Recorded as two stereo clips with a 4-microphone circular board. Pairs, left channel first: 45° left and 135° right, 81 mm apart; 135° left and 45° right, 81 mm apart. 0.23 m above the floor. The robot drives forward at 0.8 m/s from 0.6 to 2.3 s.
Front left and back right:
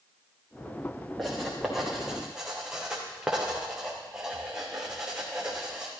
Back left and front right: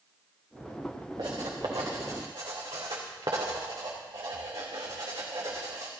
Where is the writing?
45° right, 4.5 m; by 5.9 s 55° right, 4 m.